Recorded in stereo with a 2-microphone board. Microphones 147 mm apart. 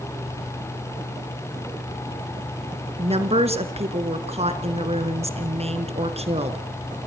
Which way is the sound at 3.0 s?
45° right (ahead or behind).